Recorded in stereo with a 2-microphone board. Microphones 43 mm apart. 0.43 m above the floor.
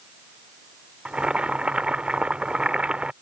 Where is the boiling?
25° right (ahead or behind).